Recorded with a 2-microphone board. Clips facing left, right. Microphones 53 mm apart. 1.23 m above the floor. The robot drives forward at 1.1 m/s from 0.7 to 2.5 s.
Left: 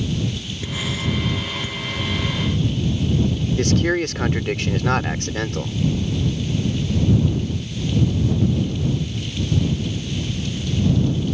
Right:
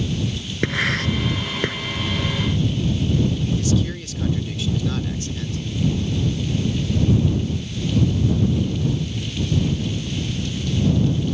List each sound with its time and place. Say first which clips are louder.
0.6 s writing: right 5 dB; 65° right (ahead or behind); by 1.8 s 70° right (ahead or behind)
3.6 s a man speaking: left 4 dB; 65° left (ahead or behind)